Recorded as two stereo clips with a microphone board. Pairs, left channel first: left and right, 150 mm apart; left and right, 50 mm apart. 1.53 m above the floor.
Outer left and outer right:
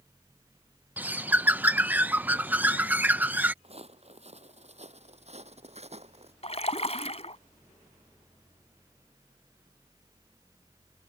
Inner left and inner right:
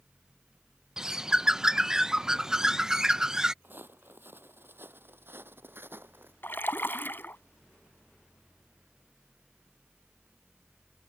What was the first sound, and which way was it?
A bird, 10° right (ahead or behind).